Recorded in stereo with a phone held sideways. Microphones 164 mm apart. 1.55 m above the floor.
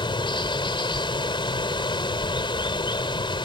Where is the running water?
30° left (ahead or behind).